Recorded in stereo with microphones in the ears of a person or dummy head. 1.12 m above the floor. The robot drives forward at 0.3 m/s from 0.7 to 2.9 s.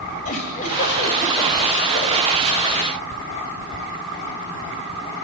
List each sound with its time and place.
0.2 s a giggle: 50° left (ahead or behind), 2 m; by 2.4 s 40° left (ahead or behind), 2.5 m